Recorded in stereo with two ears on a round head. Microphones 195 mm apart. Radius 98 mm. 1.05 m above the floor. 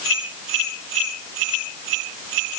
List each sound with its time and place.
Only background noise.